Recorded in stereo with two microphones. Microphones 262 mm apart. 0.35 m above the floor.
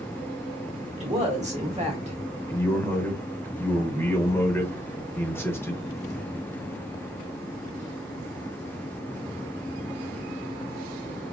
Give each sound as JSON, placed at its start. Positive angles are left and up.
{"t": 1.0, "sound": "a woman speaking", "side_deg": -25, "distance_m": 1.3}
{"t": 2.5, "sound": "a man speaking", "side_deg": 10, "distance_m": 0.8}